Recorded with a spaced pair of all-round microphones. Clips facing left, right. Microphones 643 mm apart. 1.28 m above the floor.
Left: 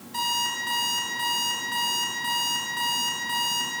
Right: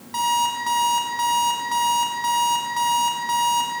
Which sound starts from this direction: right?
An alarm clock, at 0.1 s.